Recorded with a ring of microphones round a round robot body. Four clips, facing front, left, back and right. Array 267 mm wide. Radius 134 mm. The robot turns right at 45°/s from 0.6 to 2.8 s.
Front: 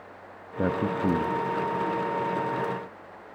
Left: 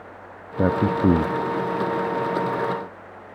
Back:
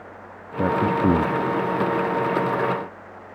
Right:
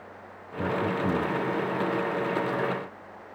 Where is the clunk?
I don't hear a clunk.